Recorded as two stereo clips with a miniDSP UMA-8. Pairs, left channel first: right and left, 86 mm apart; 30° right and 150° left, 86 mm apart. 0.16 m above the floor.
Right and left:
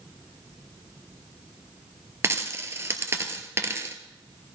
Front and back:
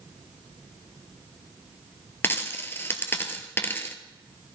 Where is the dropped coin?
30° left, 1.1 m.